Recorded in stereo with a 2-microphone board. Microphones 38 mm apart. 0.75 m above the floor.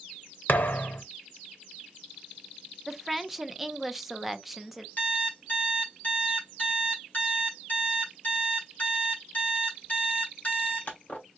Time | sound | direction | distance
0.5 | a thud | 55° left (ahead or behind) | 0.6 m
2.9 | a woman speaking | 5° right (ahead or behind) | 0.6 m
5.0 | an alarm clock | 40° left (ahead or behind) | 1.8 m